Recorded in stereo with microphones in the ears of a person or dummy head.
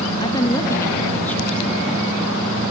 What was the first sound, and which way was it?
A woman speaking, 30° left (ahead or behind).